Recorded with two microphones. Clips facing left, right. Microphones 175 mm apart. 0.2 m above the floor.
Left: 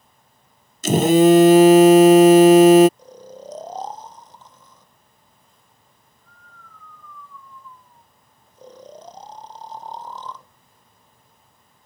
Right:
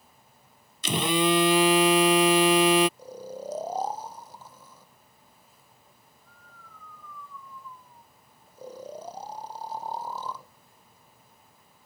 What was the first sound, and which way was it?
A phone buzzing, 45° left (ahead or behind).